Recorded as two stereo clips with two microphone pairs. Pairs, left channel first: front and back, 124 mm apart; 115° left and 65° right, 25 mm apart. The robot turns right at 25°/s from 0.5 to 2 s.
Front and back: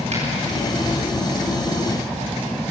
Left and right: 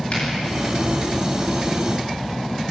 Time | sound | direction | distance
0.1 | a finger snap | 150° left | 10 m